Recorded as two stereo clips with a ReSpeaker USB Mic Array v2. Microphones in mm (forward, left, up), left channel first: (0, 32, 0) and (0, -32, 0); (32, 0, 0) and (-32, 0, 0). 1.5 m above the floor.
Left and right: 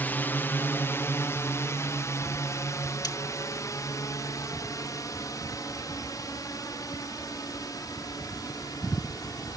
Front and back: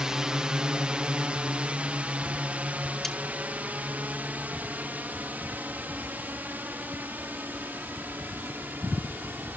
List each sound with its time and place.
0.0 s a drone: 110° left; by 9.6 s 115° left
3.0 s cutlery clinking: 85° left